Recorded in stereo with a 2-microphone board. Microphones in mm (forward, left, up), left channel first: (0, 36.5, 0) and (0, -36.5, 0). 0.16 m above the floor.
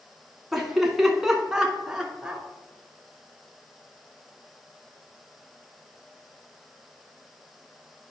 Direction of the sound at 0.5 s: Centre (ahead or behind).